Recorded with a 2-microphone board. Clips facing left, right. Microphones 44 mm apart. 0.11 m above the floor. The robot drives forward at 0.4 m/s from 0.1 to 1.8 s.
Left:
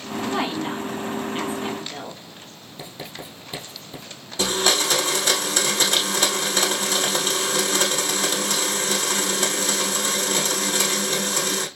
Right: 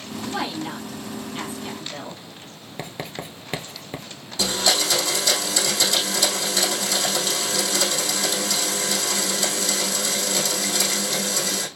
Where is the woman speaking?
30° left (ahead or behind), 1.9 m; by 2.2 s 25° left (ahead or behind), 2.5 m.